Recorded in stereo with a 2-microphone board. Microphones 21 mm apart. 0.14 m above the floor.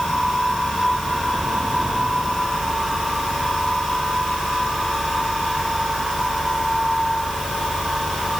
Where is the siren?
No siren in this recording.